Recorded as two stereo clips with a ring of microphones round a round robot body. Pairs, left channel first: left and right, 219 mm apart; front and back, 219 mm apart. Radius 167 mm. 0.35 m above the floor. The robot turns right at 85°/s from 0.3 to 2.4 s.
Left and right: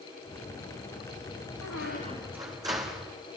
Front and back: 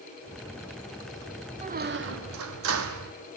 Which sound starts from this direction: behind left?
A squeak, at 1.6 s.